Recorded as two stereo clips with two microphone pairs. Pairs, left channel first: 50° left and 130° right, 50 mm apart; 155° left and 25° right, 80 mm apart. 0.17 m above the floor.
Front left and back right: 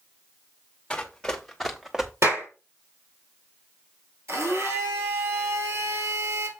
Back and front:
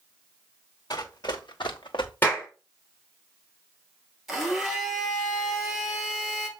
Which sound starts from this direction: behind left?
Running footsteps, at 0.9 s.